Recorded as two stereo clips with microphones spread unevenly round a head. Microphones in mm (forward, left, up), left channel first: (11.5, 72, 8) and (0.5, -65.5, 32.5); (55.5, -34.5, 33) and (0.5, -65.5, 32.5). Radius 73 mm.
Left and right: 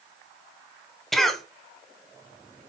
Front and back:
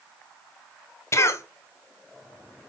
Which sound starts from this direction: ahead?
A cough, at 1.1 s.